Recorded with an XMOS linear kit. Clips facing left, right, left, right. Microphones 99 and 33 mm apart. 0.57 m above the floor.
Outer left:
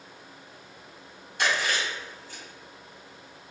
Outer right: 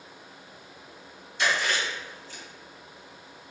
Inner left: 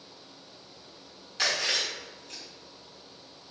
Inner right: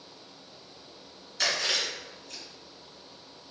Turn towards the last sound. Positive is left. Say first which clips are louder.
# even, even
turn(degrees=55)  # may be behind; listen again after turning